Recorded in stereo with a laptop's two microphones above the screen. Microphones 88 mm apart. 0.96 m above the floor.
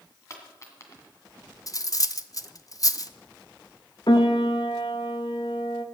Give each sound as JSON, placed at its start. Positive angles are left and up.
{"t": 0.3, "sound": "a dropped coin", "side_deg": 35, "distance_m": 2.0}
{"t": 1.7, "sound": "cutlery clinking", "side_deg": 45, "distance_m": 0.5}
{"t": 4.1, "sound": "a piano", "side_deg": 60, "distance_m": 1.1}